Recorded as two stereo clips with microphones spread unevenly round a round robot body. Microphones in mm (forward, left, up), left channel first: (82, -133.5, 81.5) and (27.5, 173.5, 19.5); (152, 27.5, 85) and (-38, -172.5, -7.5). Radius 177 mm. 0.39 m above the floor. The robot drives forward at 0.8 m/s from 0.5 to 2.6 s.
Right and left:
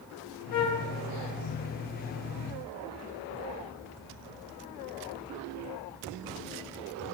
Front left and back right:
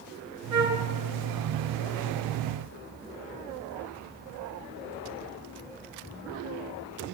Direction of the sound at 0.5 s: 75° right.